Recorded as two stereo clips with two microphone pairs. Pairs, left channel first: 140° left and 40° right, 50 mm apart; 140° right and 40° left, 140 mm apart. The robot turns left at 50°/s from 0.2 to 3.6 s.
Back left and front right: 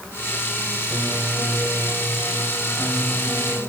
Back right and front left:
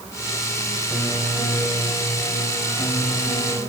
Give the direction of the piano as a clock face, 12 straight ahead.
1 o'clock.